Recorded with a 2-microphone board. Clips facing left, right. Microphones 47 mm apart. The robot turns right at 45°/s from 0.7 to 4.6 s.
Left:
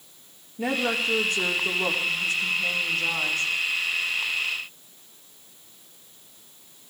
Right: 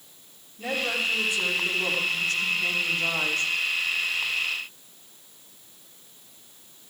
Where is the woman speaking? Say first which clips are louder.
Left 2 dB; 100° left, 3.5 m; by 3.5 s 130° right, 3.5 m.